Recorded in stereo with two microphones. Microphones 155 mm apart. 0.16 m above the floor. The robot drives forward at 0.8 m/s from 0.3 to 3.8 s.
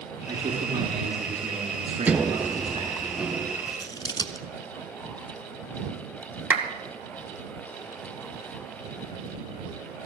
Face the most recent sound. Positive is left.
turn(degrees=-15)  # may be behind; listen again after turning